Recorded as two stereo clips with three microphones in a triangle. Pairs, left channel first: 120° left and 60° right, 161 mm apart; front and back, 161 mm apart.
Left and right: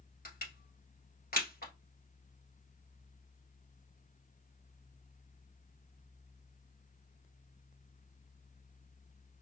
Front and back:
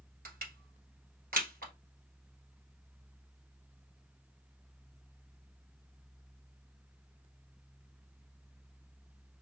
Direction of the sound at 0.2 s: 150° left.